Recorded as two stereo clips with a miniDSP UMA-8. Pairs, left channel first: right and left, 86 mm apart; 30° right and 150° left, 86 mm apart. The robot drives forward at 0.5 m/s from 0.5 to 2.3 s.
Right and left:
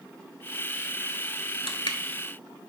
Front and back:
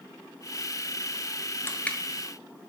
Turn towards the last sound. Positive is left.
turn(degrees=-120)